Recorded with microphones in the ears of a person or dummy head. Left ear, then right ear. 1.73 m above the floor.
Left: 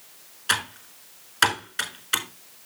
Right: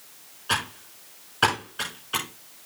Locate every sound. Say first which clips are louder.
0.5 s typing on a keyboard: left 2 dB; 55° left (ahead or behind), 4 m